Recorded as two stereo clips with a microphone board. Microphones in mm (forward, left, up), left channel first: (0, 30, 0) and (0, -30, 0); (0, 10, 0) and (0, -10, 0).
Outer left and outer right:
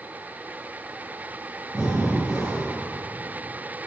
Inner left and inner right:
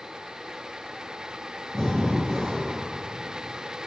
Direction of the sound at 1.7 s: 20° right (ahead or behind).